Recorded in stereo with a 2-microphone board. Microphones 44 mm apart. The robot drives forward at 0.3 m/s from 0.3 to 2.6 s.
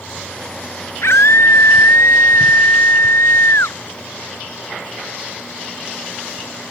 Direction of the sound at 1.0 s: 80° left.